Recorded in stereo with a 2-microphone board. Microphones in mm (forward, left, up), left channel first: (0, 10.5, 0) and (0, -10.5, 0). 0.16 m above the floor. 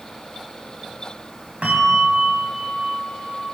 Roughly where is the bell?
Right.